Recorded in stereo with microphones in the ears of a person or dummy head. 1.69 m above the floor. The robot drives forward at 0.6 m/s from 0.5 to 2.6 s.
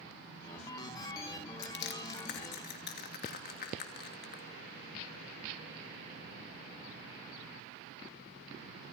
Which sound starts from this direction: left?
Crushing, at 1.6 s.